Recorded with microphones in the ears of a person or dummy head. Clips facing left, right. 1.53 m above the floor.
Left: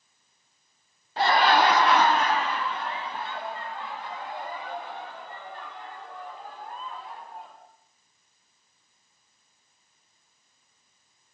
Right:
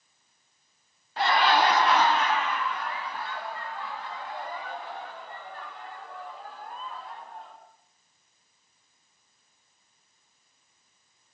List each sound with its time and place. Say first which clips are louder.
1.2 s laughter: left 2 dB; 30° left (ahead or behind), 0.6 m; by 7.6 s 10° left (ahead or behind), 5 m